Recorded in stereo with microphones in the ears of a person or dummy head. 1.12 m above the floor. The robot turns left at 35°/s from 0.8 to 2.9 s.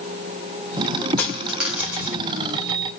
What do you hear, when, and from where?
1.2 s a dropped coin: 15° left (ahead or behind), 0.8 m; by 2.2 s 15° right (ahead or behind), 0.8 m